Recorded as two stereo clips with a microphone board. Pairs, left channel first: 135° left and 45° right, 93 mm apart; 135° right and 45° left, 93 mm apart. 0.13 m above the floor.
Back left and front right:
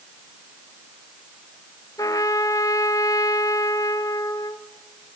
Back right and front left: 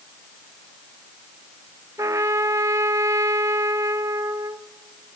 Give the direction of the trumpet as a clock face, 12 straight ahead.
9 o'clock.